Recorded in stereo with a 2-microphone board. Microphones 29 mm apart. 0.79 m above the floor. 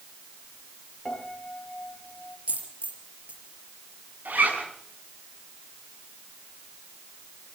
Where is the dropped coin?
55° right (ahead or behind), 5 m.